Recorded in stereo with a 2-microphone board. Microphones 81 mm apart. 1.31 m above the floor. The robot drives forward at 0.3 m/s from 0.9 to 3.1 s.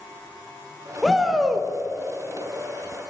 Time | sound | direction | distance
1.0 | a shout | centre (ahead or behind) | 0.9 m